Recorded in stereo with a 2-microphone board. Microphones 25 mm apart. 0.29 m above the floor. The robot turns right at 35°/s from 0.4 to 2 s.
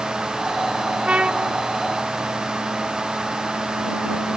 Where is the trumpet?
50° right (ahead or behind); by 1.5 s 35° right (ahead or behind).